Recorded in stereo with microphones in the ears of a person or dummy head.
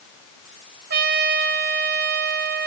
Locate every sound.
0.9 s a trumpet: 55° right (ahead or behind), 1.8 m